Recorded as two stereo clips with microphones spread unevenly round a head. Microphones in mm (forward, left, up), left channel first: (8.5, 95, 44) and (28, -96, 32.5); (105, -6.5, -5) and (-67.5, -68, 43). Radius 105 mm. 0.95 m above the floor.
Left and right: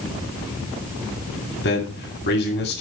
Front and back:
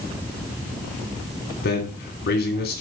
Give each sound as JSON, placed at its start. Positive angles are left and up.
{"t": 1.6, "sound": "a man speaking", "azimuth_deg": 60, "distance_m": 2.0}